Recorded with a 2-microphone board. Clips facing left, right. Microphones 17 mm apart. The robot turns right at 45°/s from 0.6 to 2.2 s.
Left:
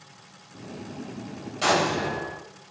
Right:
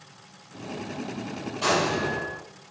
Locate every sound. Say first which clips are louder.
1.6 s an explosion: left 1 dB; 40° left (ahead or behind), 2 m; by 2.4 s 10° left (ahead or behind), 2 m